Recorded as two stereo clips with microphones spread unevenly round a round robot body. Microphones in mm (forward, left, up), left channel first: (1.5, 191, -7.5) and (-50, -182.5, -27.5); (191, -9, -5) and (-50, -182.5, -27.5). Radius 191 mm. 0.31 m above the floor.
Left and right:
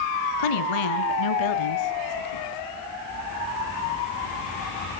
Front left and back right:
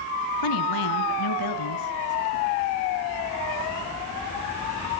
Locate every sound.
0.4 s a woman speaking: 65° left, 3 m; by 2.4 s 55° left, 5 m